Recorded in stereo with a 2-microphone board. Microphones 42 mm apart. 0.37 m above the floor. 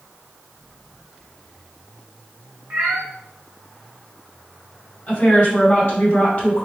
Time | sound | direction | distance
2.7 | a cat meowing | 55° right (ahead or behind) | 2.5 m
5.1 | a woman speaking | 25° left (ahead or behind) | 2.5 m